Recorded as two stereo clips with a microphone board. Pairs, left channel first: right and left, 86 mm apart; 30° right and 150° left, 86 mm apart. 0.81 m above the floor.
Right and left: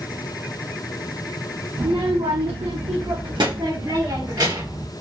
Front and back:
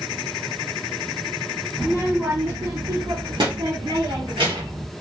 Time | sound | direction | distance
1.8 | a child speaking | 50° left | 0.5 m